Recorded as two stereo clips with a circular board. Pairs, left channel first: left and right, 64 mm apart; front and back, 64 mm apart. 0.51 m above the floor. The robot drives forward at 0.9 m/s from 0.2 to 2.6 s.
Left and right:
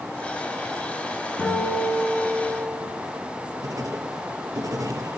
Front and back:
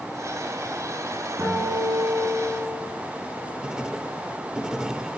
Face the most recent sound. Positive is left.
turn(degrees=-105)